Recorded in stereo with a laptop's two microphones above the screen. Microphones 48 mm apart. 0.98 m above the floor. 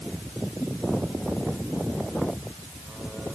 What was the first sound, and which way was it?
Only background noise.